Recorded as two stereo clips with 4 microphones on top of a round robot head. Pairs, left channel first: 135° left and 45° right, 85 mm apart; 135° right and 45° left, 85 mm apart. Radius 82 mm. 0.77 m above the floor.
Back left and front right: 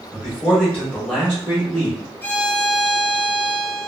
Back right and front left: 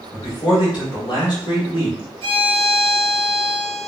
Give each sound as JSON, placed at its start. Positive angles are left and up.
{"t": 0.1, "sound": "a man speaking", "azimuth_deg": -145, "distance_m": 1.5}
{"t": 2.2, "sound": "a violin", "azimuth_deg": 60, "distance_m": 0.8}